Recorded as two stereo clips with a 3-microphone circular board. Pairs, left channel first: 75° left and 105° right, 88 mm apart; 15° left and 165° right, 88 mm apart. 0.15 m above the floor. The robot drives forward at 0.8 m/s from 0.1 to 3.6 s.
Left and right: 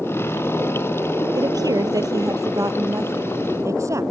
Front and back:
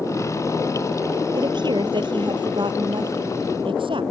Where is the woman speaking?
140° right; by 4.0 s 155° right.